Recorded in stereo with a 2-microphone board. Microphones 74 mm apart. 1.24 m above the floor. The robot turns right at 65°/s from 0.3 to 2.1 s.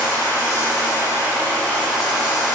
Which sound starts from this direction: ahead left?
Running water, at 0.0 s.